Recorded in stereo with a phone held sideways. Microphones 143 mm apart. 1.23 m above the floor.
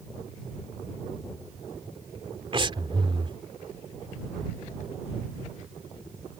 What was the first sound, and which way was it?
Breathing, 40° right (ahead or behind).